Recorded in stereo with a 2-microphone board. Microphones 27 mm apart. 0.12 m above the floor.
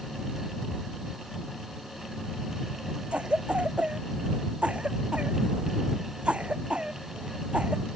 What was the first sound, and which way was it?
A cough, 45° right (ahead or behind).